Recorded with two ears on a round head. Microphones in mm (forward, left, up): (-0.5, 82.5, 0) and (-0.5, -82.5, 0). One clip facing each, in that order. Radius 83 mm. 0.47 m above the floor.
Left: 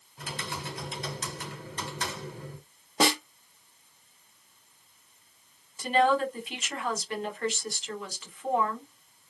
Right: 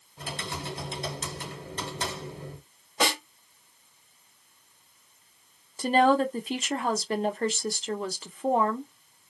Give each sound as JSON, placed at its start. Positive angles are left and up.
{"t": 0.2, "sound": "typing on a keyboard", "side_deg": -25, "distance_m": 1.1}
{"t": 3.0, "sound": "a snare drum", "side_deg": 35, "distance_m": 1.2}
{"t": 5.8, "sound": "a woman speaking", "side_deg": -30, "distance_m": 0.8}